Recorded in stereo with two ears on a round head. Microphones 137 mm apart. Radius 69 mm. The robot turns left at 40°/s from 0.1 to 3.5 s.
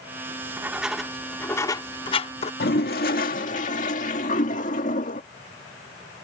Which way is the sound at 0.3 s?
20° right (ahead or behind).